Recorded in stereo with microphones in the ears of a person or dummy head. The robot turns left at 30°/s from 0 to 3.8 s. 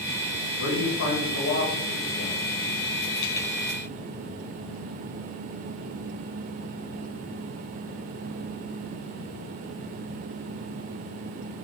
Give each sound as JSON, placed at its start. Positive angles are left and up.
{"t": 0.6, "sound": "a man speaking", "azimuth_deg": 110, "distance_m": 1.4}